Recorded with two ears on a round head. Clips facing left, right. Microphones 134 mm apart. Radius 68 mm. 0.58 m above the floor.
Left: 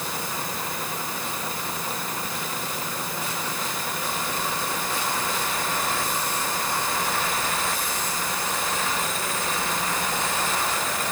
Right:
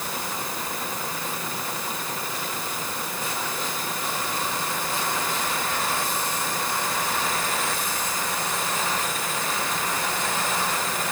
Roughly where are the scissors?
I don't hear scissors.